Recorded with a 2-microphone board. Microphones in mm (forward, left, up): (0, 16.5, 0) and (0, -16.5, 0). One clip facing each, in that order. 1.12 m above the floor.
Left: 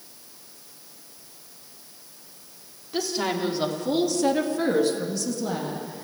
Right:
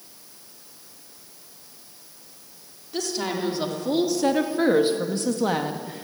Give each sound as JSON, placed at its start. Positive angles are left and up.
{"t": 2.9, "sound": "a woman speaking", "side_deg": 10, "distance_m": 3.5}